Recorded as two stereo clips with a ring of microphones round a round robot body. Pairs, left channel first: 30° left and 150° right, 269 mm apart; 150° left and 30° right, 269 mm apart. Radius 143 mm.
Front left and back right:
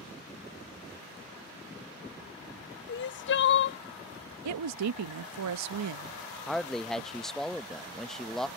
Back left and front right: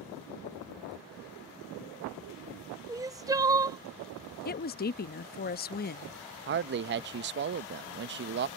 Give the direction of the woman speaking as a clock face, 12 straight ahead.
5 o'clock.